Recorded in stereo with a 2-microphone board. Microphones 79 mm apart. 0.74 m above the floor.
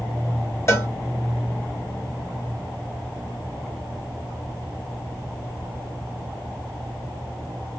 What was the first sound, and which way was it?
A cowbell, 35° left (ahead or behind).